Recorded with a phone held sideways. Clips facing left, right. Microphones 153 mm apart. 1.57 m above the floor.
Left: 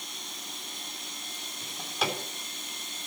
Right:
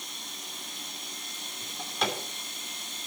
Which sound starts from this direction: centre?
A drawer, at 1.6 s.